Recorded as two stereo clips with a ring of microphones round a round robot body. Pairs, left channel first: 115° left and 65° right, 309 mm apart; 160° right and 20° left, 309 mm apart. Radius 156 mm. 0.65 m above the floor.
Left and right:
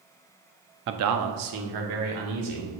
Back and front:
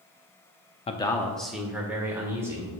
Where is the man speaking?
95° right, 0.6 m; by 2.8 s 60° right, 2.5 m.